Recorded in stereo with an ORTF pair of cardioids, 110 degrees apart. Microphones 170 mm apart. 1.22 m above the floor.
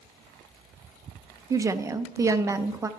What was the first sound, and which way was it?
A woman speaking, 20° right.